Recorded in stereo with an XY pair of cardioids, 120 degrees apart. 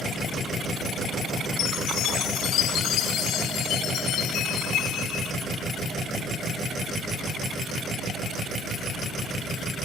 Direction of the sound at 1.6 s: 70° left.